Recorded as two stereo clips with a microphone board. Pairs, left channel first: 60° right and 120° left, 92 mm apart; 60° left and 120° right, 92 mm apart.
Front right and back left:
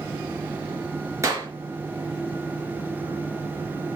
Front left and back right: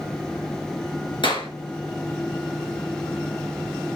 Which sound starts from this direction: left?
A clap, at 1.2 s.